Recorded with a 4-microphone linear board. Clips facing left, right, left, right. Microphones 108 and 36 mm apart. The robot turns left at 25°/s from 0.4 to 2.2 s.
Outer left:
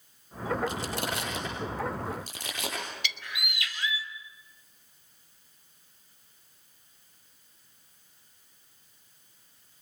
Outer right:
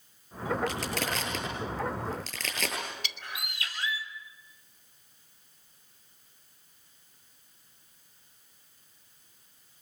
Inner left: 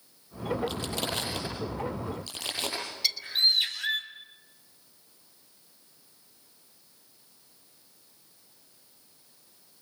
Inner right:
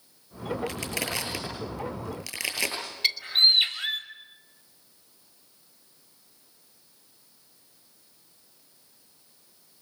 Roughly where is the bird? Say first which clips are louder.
Outer left 2 dB, inner right 5 dB; right.